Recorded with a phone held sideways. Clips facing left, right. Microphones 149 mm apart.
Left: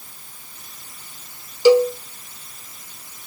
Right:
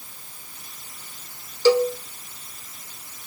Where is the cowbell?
15° left (ahead or behind), 1.8 m.